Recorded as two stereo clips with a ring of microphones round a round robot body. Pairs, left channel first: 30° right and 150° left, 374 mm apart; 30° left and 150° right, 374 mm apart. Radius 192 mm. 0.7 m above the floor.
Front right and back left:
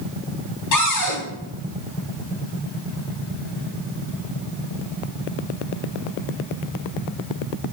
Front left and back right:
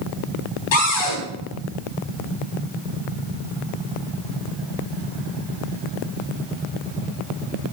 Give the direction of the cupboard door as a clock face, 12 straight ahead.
12 o'clock.